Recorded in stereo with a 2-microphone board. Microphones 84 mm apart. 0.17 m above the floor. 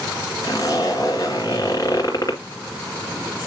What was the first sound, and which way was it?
A zipper, 40° left (ahead or behind).